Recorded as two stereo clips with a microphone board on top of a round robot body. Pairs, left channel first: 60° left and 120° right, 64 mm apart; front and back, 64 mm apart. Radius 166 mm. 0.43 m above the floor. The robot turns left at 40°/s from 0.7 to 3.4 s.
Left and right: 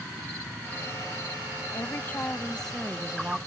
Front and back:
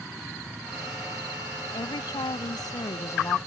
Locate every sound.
1.7 s a woman speaking: 15° left; by 3.4 s 50° right